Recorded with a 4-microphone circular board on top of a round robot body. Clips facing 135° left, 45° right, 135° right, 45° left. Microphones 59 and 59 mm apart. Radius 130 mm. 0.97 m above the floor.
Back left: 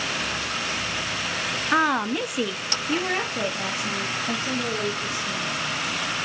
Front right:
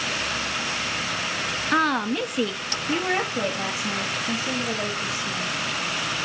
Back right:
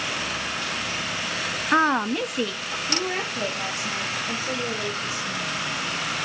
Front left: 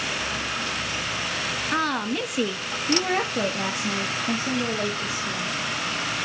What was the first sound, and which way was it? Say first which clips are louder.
A woman speaking: back left 1 dB, back right 6 dB; 150° right.